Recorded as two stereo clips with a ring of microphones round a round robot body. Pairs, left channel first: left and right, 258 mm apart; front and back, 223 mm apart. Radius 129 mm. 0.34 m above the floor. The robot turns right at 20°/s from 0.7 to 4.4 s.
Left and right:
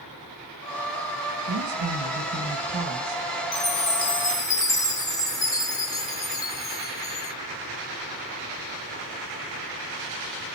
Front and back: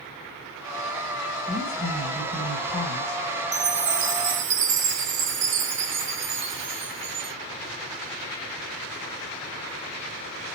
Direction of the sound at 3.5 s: 145° left.